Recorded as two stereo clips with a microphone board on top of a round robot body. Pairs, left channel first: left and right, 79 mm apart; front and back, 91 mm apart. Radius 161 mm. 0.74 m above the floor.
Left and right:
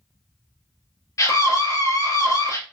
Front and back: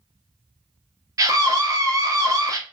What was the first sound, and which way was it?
A scream, 135° left.